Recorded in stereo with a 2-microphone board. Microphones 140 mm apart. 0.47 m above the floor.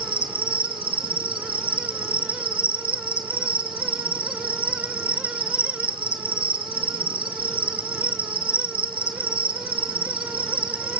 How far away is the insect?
About 3 m.